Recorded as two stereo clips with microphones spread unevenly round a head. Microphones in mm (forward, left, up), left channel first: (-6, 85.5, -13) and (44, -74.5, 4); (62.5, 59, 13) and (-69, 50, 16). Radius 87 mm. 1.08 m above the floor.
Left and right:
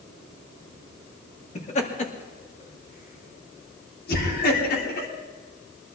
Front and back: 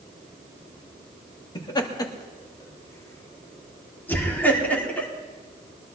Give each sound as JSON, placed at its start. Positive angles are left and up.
{"t": 1.6, "sound": "laughter", "azimuth_deg": 60, "distance_m": 2.5}